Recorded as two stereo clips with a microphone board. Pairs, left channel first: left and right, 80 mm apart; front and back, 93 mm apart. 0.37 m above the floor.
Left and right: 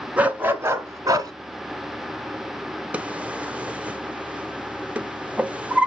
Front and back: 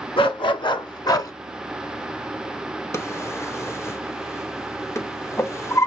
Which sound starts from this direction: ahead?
A dog barking, at 0.2 s.